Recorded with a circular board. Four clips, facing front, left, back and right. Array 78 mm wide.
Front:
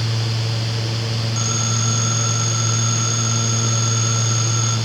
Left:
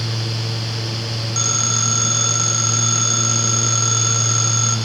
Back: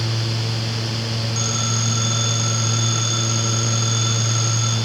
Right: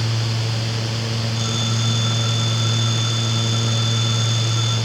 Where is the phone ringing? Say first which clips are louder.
Even, front 1 dB; 90° left, 4.5 m.